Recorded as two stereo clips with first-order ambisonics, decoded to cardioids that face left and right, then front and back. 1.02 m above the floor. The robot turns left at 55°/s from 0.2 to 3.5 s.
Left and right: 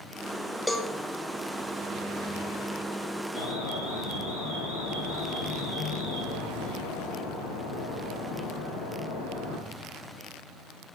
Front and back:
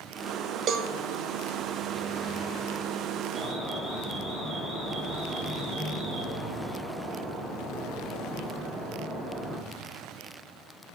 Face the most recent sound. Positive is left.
turn(degrees=90)